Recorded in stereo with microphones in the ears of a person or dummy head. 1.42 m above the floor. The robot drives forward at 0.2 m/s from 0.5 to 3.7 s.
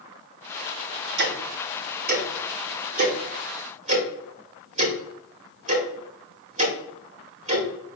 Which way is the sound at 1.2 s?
55° right (ahead or behind).